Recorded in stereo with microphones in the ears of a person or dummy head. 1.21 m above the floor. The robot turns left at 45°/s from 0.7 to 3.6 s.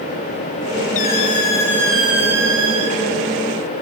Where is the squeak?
45° left, 3 m; by 3.0 s 45° right, 3 m.